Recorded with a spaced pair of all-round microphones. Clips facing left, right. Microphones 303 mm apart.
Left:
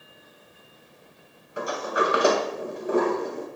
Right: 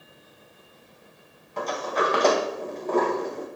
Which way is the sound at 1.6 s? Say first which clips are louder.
Even; 10° left (ahead or behind).